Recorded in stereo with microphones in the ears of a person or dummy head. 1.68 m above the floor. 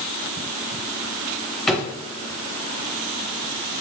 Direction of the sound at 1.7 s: 5° left (ahead or behind).